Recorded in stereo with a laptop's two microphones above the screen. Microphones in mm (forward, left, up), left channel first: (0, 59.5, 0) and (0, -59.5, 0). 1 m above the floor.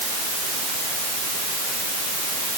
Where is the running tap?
I don't hear a running tap.